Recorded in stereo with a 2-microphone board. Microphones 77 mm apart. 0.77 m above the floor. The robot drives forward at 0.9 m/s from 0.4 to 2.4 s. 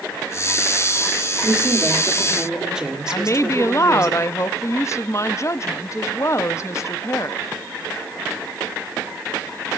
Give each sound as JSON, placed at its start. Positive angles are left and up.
{"t": 1.4, "sound": "a woman speaking", "side_deg": -15, "distance_m": 1.8}
{"t": 3.1, "sound": "a woman speaking", "side_deg": 40, "distance_m": 0.6}